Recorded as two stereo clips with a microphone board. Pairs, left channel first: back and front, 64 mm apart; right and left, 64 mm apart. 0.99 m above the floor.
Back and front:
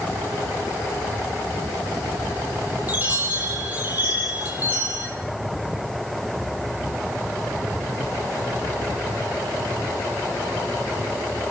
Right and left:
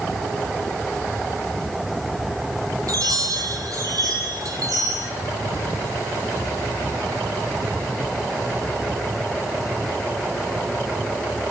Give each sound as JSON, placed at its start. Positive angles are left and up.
{"t": 2.9, "sound": "a chime", "azimuth_deg": 65, "distance_m": 7.0}